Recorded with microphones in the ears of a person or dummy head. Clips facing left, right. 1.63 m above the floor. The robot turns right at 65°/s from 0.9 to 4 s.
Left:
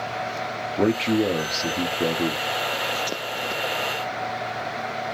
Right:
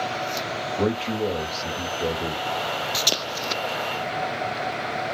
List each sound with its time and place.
0.8 s a man speaking: 25° left, 0.8 m; by 2.4 s 125° left, 0.8 m